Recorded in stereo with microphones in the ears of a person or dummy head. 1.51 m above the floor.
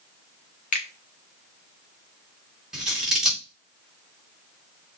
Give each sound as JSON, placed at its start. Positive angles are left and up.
{"t": 0.7, "sound": "a finger snap", "side_deg": 45, "distance_m": 1.0}
{"t": 2.7, "sound": "scissors", "side_deg": 0, "distance_m": 2.5}